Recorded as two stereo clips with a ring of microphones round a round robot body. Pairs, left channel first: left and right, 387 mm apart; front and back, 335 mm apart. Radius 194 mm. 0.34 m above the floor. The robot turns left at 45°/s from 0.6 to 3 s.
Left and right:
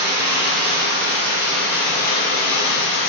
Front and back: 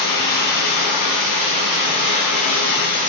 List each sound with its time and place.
0.0 s running water: 140° right, 1.0 m; by 3.1 s 115° left, 1.0 m